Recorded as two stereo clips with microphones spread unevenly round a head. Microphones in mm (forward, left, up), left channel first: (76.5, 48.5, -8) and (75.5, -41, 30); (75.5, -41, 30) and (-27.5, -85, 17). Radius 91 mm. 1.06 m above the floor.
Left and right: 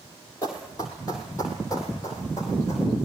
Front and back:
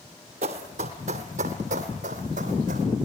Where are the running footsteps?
170° left, 1.9 m.